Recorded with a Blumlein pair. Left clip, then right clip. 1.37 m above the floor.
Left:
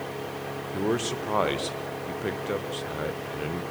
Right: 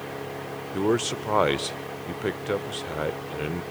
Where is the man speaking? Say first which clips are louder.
Right 3 dB; 15° right, 0.7 m.